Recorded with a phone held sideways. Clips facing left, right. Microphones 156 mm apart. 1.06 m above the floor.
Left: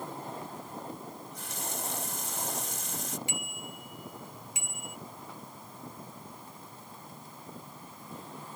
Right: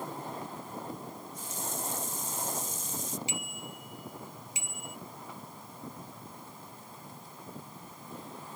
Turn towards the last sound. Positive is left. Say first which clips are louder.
# even
turn(degrees=55)  # may be behind; listen again after turning